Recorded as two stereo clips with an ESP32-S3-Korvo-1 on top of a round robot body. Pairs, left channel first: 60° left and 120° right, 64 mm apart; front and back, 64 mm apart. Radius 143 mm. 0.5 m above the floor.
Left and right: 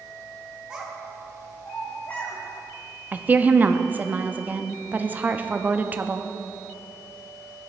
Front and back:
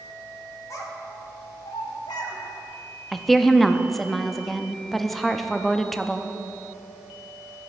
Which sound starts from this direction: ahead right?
A child speaking, at 0.7 s.